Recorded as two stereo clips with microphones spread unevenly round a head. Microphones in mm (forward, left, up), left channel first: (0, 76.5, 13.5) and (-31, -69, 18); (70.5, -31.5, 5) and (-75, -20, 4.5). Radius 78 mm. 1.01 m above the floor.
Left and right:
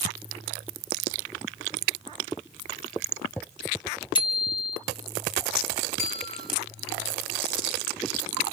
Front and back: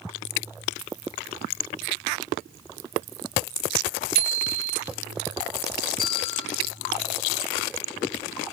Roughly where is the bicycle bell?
Behind left.